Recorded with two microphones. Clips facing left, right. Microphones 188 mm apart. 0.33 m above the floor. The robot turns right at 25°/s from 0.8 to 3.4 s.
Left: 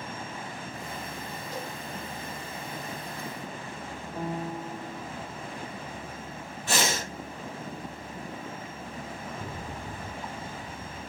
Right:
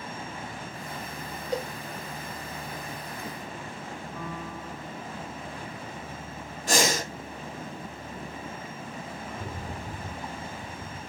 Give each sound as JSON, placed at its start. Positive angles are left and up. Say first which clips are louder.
{"t": 1.5, "sound": "a cowbell", "louder": "right 8 dB", "side_deg": -70, "distance_m": 4.5}
{"t": 4.2, "sound": "a piano", "louder": "left 8 dB", "side_deg": 35, "distance_m": 1.0}
{"t": 6.7, "sound": "breathing", "louder": "right 3 dB", "side_deg": -40, "distance_m": 3.0}
{"t": 9.3, "sound": "a rattle", "louder": "right 1 dB", "side_deg": -10, "distance_m": 2.5}